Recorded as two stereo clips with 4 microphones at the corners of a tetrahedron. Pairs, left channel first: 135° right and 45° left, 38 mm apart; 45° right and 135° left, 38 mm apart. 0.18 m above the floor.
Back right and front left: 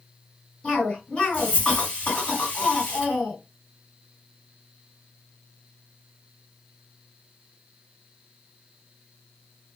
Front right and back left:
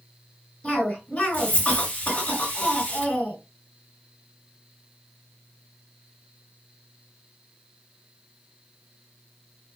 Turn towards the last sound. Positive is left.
turn(degrees=-85)